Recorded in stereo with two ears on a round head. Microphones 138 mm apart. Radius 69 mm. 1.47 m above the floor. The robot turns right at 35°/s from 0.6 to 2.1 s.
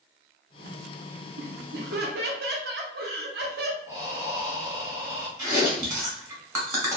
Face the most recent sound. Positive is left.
turn(degrees=-20)  # may be behind; listen again after turning